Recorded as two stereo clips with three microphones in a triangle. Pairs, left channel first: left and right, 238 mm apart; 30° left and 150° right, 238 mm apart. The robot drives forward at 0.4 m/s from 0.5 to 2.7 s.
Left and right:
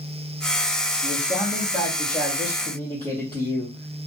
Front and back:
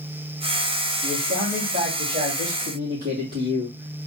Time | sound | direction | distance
1.0 | a man speaking | 170° left | 3 m